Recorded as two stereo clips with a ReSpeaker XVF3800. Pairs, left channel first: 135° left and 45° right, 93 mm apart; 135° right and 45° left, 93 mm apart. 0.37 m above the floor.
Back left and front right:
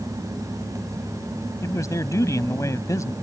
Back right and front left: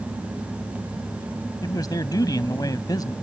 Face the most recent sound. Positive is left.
turn(degrees=-175)